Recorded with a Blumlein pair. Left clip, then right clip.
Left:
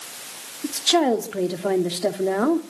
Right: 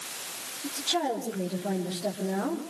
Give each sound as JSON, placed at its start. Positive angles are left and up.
{"t": 0.6, "sound": "a woman speaking", "azimuth_deg": 30, "distance_m": 2.0}